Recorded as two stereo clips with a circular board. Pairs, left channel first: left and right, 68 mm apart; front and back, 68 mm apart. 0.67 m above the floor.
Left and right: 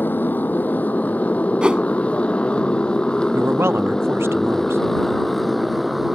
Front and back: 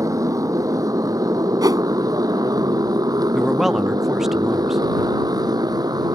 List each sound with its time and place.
0.0 s a motorcycle: 150° left; by 6.2 s straight behind
1.6 s a whoosh: 165° right
3.3 s a man speaking: 95° right